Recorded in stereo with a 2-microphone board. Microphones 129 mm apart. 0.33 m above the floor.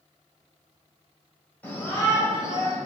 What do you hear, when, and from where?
1.6 s a shout: 15° left (ahead or behind), 1.7 m; by 2.8 s 35° left (ahead or behind), 1.7 m